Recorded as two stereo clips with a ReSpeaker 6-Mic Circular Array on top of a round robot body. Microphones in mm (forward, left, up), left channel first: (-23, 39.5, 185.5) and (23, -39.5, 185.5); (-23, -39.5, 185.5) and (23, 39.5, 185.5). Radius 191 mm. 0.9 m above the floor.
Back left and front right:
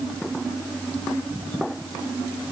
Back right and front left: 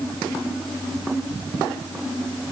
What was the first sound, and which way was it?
Only background noise.